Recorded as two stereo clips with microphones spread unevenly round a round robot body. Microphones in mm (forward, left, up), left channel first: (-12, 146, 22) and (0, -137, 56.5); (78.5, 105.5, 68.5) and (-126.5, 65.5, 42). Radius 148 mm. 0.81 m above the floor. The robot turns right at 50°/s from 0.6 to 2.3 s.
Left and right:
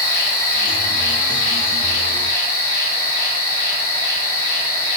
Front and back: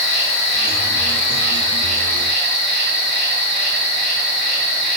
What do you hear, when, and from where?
0.0 s an insect: 70° left, 1.0 m; by 5.0 s 155° left, 1.0 m